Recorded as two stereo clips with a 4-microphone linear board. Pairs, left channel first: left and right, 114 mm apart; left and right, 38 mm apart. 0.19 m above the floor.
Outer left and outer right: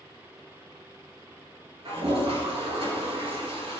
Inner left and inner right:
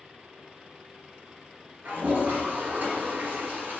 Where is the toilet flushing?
65° right (ahead or behind), 4.5 m.